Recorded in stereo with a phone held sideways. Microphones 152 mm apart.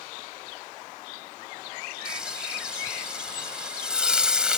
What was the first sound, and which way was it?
Frying, 5° right (ahead or behind).